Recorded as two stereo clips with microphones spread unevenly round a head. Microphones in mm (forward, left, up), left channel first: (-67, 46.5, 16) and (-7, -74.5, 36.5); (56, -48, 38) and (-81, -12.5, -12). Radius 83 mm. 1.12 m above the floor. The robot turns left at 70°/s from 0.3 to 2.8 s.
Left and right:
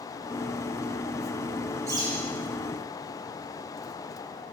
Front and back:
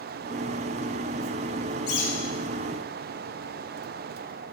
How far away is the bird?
About 7.5 m.